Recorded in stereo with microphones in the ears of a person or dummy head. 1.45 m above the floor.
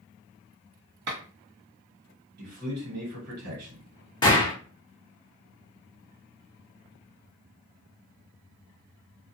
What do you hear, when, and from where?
1.1 s a clap: 65° right (ahead or behind), 1.4 m
2.4 s a man speaking: 60° right (ahead or behind), 1.3 m
4.2 s a gunshot: 25° left (ahead or behind), 0.8 m